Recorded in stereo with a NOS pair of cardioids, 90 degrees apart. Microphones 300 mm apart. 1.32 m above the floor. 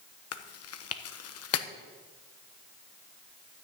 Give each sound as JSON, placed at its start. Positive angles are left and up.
{"t": 0.3, "sound": "chewing", "azimuth_deg": 55, "distance_m": 1.2}